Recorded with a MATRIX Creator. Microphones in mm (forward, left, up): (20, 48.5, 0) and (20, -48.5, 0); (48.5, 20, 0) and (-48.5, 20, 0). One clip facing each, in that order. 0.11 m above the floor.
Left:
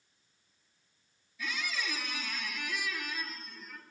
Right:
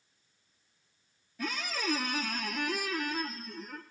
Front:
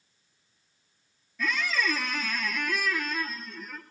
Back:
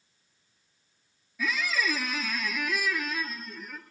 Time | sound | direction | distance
1.4 | a squeak | 95° right | 1.0 m